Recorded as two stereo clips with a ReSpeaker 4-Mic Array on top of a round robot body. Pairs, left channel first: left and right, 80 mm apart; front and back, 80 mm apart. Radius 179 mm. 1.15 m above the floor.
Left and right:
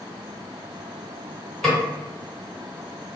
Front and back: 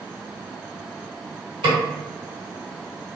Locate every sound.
1.6 s a snare drum: 175° left, 1.3 m